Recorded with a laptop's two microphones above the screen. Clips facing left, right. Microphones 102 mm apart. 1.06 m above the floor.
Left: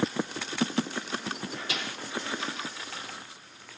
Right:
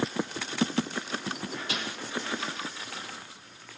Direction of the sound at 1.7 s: 45° right (ahead or behind).